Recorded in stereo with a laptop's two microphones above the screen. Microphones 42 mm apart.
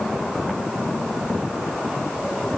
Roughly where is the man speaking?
I don't hear a man speaking.